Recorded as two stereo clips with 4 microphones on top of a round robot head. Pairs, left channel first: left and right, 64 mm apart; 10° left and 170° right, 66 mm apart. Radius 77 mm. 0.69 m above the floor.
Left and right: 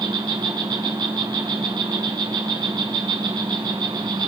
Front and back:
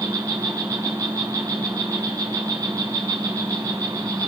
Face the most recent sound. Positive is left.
turn(degrees=-120)